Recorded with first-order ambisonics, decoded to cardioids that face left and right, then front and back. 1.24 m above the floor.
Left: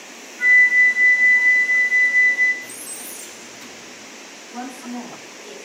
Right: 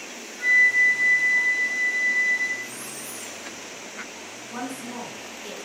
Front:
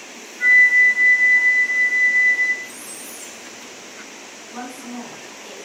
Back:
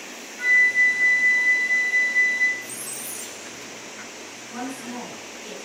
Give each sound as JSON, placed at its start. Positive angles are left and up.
{"t": 0.4, "sound": "a flute", "azimuth_deg": 170, "distance_m": 1.1}
{"t": 2.6, "sound": "a squeak", "azimuth_deg": 150, "distance_m": 0.7}
{"t": 4.5, "sound": "a woman speaking", "azimuth_deg": -105, "distance_m": 1.1}